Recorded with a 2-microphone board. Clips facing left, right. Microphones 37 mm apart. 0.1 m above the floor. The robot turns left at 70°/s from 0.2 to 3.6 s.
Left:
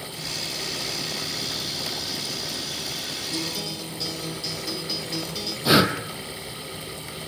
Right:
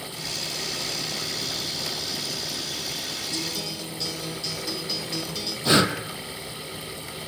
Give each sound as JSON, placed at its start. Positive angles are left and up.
{"t": 3.3, "sound": "a guitar", "side_deg": 20, "distance_m": 3.0}
{"t": 5.7, "sound": "breathing", "side_deg": 5, "distance_m": 1.2}